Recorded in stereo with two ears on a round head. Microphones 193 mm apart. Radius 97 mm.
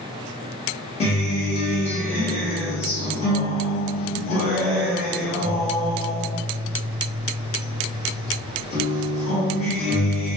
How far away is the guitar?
About 1.1 m.